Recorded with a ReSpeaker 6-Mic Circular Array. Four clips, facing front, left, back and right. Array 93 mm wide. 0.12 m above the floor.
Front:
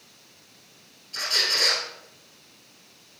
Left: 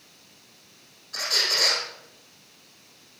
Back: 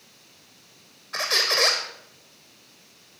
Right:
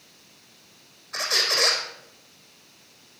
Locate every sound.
1.1 s a squeak: 160° right, 4 m